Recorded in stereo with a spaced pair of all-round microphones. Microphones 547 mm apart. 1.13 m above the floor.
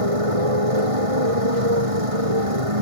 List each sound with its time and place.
0.0 s a motorcycle: 80° right